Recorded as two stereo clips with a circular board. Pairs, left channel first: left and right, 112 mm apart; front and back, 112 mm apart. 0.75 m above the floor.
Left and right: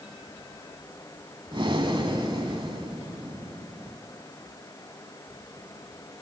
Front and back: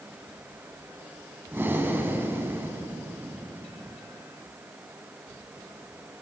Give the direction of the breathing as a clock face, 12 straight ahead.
4 o'clock.